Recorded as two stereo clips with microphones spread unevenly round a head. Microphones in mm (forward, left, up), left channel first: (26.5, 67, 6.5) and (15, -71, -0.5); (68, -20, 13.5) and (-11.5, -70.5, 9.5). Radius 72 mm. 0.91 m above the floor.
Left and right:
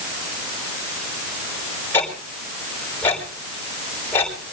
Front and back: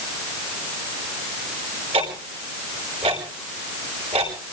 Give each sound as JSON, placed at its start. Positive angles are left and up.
{"t": 1.9, "sound": "ticking", "azimuth_deg": 160, "distance_m": 5.0}